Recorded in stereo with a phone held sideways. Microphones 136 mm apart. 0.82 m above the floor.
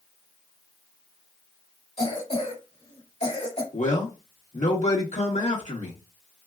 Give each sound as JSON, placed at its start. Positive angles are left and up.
{"t": 2.0, "sound": "a cough", "side_deg": 55, "distance_m": 2.0}
{"t": 3.7, "sound": "a man speaking", "side_deg": 65, "distance_m": 1.7}